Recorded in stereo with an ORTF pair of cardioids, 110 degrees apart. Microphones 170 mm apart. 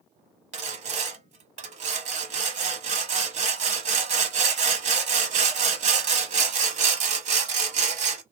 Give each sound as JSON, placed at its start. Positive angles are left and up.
{"t": 0.5, "sound": "sawing", "azimuth_deg": -45, "distance_m": 0.8}